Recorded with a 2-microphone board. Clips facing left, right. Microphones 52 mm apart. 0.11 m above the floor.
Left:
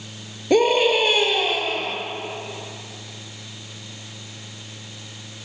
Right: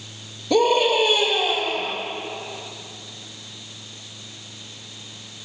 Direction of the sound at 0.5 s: 45° left (ahead or behind).